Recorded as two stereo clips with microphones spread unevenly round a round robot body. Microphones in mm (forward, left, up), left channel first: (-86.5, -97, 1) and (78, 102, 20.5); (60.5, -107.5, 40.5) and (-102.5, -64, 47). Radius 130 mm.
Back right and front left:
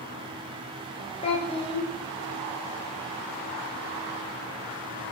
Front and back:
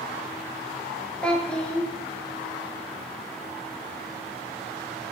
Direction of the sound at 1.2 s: 90° right.